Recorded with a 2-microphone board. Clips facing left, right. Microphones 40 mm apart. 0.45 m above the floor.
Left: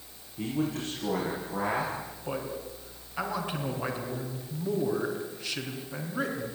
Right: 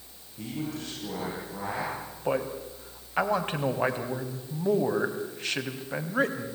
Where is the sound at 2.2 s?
45° right (ahead or behind), 3.5 m.